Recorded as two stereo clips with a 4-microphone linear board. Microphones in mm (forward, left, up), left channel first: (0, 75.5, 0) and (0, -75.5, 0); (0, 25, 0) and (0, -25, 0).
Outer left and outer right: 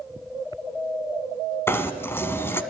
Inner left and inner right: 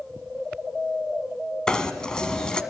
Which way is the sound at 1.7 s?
15° left (ahead or behind).